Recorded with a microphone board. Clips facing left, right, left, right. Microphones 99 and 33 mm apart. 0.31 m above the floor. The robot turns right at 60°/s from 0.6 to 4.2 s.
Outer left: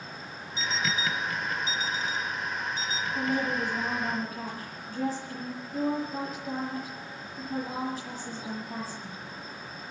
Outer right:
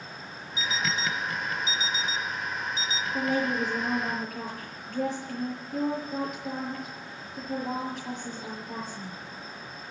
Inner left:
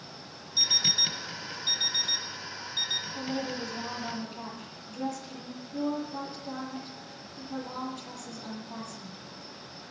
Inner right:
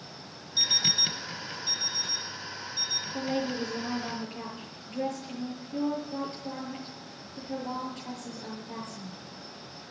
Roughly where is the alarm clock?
Ahead.